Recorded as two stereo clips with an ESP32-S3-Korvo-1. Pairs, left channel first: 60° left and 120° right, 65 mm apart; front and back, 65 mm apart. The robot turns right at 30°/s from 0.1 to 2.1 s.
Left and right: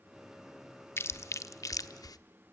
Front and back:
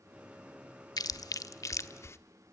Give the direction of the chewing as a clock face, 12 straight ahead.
12 o'clock.